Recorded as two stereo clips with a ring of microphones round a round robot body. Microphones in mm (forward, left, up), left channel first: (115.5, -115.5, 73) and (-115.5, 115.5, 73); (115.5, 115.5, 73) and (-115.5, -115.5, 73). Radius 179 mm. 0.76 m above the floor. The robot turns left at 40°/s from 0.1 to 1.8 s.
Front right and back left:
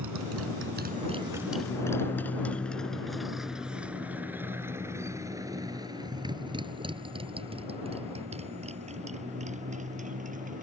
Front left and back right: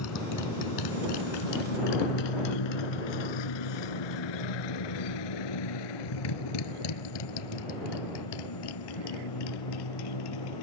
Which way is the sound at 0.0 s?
95° left.